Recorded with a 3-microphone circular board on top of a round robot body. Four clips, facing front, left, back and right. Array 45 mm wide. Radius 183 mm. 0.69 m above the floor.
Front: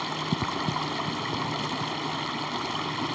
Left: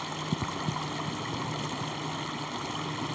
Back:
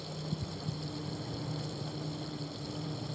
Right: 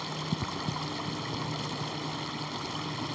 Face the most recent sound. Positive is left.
turn(degrees=10)